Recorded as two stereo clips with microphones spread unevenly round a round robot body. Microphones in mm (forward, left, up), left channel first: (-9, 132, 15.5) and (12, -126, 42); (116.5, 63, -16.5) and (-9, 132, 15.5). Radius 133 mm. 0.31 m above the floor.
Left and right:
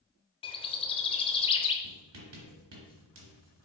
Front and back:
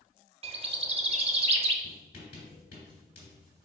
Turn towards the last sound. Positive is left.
turn(degrees=-70)